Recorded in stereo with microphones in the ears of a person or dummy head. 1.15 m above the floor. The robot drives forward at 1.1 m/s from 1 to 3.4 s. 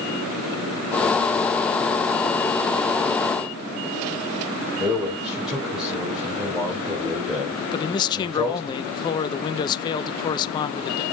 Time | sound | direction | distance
4.8 | a man speaking | 5° right (ahead or behind) | 4 m
7.7 | a man speaking | 25° left (ahead or behind) | 0.8 m